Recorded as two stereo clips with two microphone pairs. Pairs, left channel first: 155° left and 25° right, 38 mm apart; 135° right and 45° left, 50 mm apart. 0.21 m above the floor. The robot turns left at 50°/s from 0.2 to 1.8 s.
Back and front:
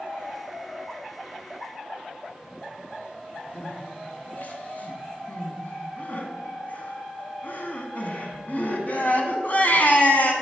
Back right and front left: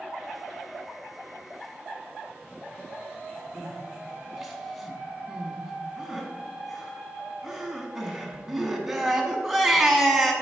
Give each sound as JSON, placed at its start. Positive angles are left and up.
{"t": 3.5, "sound": "crying", "azimuth_deg": 130, "distance_m": 0.9}